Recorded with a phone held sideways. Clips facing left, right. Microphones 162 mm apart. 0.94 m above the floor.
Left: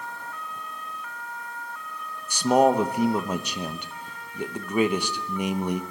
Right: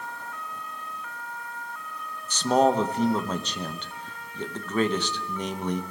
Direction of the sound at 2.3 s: 10° left (ahead or behind).